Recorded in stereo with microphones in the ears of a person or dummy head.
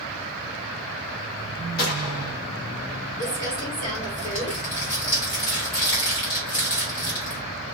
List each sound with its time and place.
1.8 s a gunshot: 50° left (ahead or behind), 1.1 m
3.2 s crumpling: 50° left (ahead or behind), 1.1 m